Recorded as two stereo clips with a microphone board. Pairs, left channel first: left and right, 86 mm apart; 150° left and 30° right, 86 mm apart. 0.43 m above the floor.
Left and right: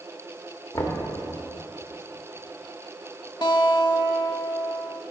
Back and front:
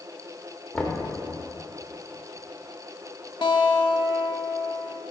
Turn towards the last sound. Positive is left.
turn(degrees=125)